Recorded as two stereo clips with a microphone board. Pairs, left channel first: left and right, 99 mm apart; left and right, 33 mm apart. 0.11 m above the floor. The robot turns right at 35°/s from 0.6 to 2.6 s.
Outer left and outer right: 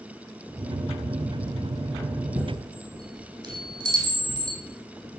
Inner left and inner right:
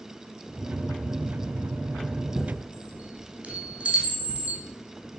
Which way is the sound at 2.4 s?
50° right (ahead or behind).